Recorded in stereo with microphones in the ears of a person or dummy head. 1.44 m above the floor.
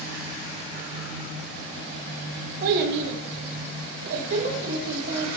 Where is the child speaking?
50° right (ahead or behind), 0.8 m; by 5.3 s 30° right (ahead or behind), 2 m.